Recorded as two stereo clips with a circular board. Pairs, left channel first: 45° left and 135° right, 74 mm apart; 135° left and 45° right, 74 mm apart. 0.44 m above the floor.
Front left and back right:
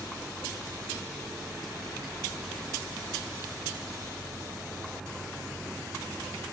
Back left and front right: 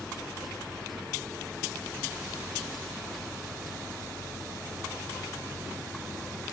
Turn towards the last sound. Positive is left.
No sound to turn to.